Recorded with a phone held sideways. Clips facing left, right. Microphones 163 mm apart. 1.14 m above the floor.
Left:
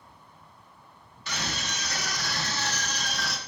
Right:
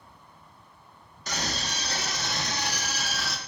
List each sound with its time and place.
1.3 s a scream: 40° right (ahead or behind), 1.7 m; by 3.4 s centre (ahead or behind), 1.5 m